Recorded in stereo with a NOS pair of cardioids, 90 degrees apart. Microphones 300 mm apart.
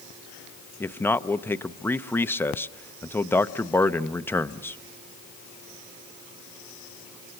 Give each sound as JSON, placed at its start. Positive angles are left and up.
{"t": 0.8, "sound": "a man speaking", "azimuth_deg": 5, "distance_m": 0.7}